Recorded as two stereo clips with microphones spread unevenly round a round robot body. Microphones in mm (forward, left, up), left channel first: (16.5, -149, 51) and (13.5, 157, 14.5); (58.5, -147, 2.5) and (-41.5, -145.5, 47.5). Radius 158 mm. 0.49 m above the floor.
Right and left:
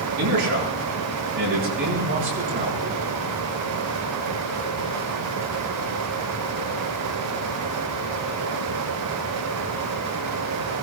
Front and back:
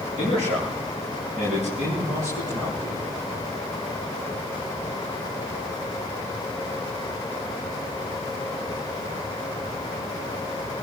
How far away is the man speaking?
About 9 m.